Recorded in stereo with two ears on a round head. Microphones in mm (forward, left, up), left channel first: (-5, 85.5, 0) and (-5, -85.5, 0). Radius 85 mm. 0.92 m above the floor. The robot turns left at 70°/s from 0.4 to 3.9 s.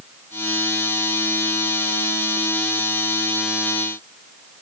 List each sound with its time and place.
Only background noise.